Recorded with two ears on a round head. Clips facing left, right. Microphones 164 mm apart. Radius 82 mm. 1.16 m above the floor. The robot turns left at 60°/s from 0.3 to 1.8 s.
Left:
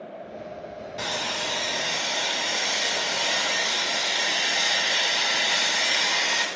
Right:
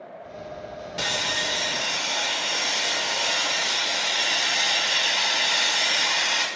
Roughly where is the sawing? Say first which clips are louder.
Right 1 dB; behind right.